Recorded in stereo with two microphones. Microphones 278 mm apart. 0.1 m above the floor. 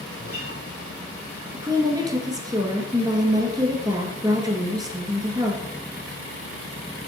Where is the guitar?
55° left (ahead or behind), 2.5 m.